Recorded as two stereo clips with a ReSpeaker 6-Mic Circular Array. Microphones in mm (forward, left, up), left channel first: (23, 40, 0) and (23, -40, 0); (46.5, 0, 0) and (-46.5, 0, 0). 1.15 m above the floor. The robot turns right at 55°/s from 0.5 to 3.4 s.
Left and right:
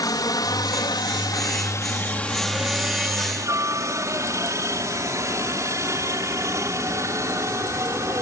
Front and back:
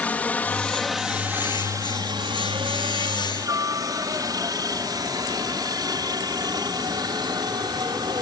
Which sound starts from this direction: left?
A helicopter, at 0.0 s.